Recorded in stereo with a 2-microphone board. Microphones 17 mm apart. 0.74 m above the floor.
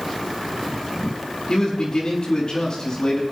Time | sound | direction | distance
1.5 | a man speaking | 50° left (ahead or behind) | 6.5 m